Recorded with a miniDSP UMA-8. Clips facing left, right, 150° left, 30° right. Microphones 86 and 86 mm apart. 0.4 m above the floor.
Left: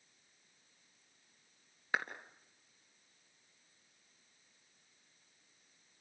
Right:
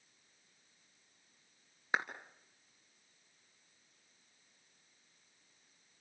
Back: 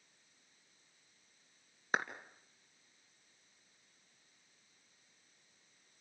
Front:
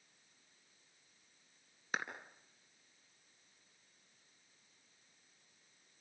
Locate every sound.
1.9 s a clap: 160° right, 3 m